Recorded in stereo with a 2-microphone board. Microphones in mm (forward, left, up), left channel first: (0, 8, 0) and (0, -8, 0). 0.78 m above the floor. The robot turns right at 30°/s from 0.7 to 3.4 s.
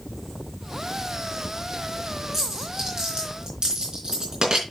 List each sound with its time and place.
2.3 s a dropped coin: 15° right (ahead or behind), 4 m; by 4.6 s 45° right (ahead or behind), 4 m